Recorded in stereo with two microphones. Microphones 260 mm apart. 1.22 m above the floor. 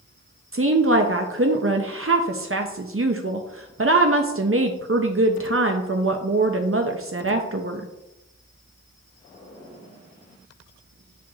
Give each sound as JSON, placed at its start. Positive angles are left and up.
{"t": 0.5, "sound": "a woman speaking", "side_deg": -50, "distance_m": 0.6}